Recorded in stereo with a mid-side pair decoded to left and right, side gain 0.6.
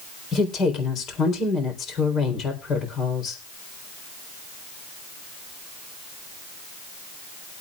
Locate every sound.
0.3 s a woman speaking: 50° left, 3.5 m